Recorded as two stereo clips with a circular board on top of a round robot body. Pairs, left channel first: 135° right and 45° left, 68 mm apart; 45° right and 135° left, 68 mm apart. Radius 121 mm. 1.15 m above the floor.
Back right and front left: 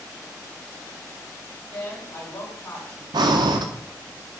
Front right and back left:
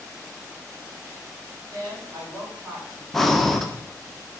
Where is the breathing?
40° left, 0.5 m.